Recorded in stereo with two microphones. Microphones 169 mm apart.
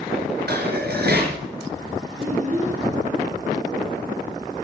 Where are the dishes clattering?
75° right (ahead or behind), 3 m.